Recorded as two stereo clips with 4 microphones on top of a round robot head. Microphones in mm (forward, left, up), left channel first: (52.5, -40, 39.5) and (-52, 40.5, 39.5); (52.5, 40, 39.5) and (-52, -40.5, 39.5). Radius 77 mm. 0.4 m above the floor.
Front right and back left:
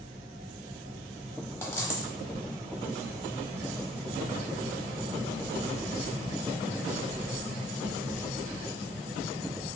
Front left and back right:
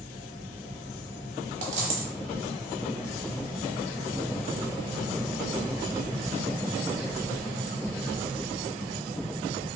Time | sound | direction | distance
1.6 | a dropped coin | 110° right | 0.7 m